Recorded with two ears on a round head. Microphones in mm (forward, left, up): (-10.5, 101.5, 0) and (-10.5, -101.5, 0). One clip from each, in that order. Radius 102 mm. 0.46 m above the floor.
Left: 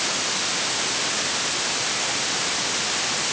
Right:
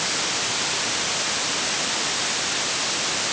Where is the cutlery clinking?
I don't hear cutlery clinking.